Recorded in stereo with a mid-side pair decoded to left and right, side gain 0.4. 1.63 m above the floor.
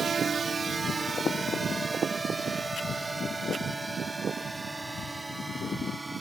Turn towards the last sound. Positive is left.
turn(degrees=-20)